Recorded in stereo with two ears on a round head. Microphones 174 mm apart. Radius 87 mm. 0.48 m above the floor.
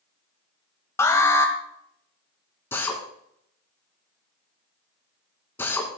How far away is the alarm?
About 2.0 m.